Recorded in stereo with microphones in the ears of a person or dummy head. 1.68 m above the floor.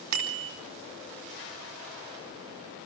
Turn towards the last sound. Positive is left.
turn(degrees=-80)